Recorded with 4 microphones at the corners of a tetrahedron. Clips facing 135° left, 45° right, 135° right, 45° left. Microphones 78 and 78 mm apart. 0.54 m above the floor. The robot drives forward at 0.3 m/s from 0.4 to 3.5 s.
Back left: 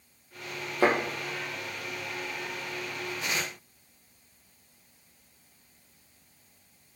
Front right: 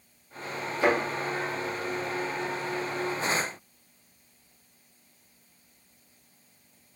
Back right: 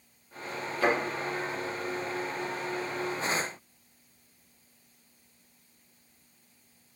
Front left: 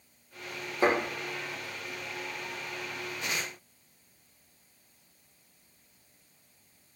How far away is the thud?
About 6.5 m.